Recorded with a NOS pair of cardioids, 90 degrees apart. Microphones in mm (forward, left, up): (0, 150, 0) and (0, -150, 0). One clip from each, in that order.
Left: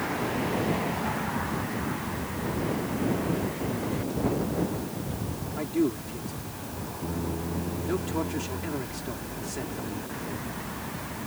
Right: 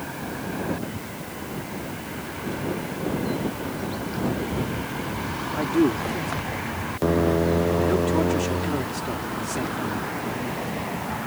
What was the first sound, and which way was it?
A man speaking, 30° right.